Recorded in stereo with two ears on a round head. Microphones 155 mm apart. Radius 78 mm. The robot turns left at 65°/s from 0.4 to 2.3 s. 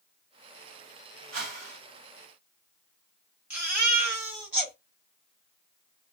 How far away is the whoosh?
About 1.7 m.